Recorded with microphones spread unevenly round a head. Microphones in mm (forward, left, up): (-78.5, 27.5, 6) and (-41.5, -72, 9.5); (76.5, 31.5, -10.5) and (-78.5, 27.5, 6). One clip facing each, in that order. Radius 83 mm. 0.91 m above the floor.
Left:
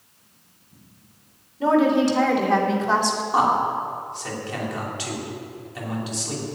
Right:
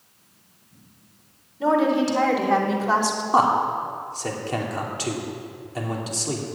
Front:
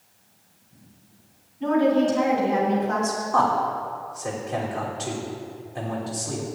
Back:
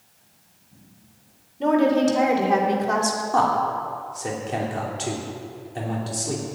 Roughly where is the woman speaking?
Behind.